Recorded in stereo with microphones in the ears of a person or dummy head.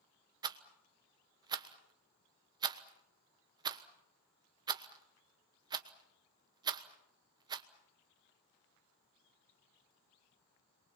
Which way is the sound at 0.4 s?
15° right (ahead or behind).